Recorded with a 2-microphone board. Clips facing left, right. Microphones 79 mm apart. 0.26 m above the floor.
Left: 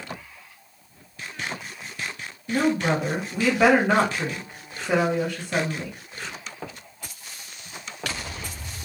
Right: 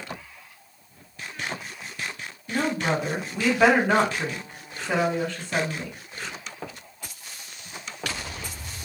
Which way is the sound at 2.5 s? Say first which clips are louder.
Left 3 dB; 15° left (ahead or behind).